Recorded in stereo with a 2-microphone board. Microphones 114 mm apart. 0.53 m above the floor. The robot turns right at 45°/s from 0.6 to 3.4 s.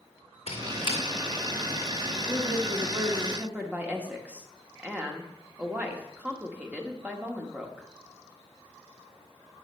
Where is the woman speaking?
75° right, 1.2 m; by 7.9 s 20° right, 1.2 m.